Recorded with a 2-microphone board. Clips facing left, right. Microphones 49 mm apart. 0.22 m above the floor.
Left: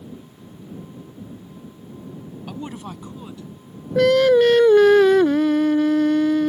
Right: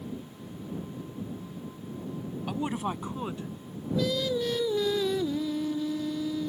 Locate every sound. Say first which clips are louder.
2.5 s a woman speaking: right 2 dB; 10° right (ahead or behind); by 3.5 s 30° right (ahead or behind)
4.0 s singing: left 15 dB; 70° left (ahead or behind)